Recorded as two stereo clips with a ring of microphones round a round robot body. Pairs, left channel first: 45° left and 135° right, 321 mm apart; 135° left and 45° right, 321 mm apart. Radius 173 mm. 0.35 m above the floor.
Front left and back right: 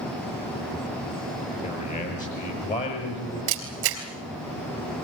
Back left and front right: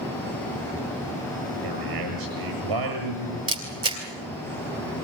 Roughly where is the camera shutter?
Behind right.